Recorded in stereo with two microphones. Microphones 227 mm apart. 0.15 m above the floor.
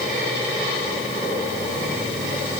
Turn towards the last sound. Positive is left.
No sound to turn to.